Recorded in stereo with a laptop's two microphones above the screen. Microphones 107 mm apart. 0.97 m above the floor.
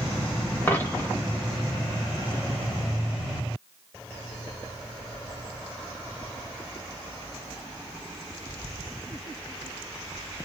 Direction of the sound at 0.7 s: 20° left (ahead or behind).